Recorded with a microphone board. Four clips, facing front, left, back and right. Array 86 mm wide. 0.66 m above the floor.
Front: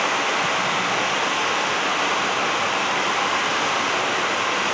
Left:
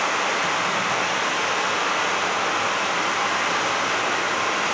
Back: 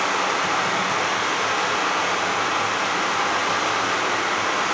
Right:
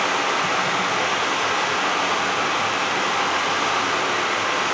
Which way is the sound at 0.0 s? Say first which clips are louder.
Right 1 dB, even; 25° right.